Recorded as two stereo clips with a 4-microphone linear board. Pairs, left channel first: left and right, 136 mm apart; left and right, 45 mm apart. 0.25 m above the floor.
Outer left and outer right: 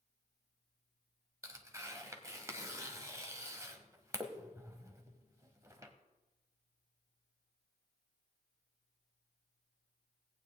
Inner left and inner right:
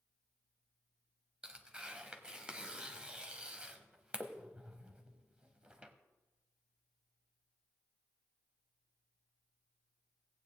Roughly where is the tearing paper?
Right.